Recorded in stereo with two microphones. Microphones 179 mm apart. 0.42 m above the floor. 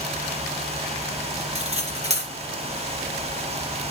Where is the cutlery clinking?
35° right (ahead or behind), 4 m.